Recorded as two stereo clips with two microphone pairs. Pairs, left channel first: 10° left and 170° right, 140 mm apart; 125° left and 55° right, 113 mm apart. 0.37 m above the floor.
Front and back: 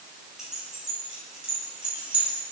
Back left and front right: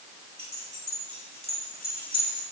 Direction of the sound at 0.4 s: 80° right.